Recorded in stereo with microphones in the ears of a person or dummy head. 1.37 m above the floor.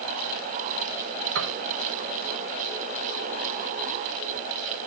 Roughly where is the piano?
Right.